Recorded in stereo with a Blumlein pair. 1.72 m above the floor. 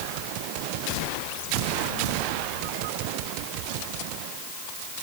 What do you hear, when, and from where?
Only background noise.